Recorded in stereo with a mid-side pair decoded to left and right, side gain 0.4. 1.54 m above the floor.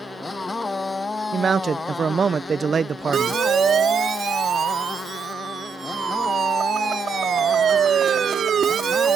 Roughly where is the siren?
Ahead right.